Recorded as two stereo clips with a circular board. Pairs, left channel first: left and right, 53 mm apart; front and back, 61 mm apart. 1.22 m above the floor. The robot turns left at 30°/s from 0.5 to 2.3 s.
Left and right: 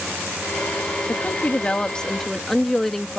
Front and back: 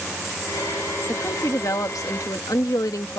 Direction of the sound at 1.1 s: 40° left.